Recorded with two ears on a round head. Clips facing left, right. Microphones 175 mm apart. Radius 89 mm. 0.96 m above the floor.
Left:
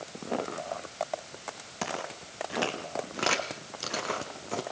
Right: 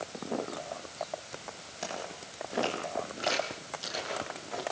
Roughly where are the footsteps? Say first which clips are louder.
Left 3 dB; left.